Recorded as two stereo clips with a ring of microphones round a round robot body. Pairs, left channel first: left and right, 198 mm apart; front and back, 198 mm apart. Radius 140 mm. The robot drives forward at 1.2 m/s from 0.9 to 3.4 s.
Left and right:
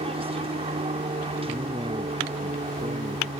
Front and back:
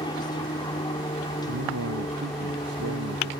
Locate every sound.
0.0 s an aircraft: 55° right; by 3.4 s 60° right
1.5 s a man speaking: 170° right